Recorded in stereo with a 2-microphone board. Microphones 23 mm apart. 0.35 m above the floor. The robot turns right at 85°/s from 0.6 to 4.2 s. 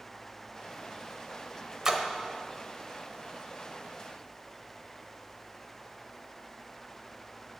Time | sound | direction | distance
1.9 | a splash | 25° right (ahead or behind) | 1.2 m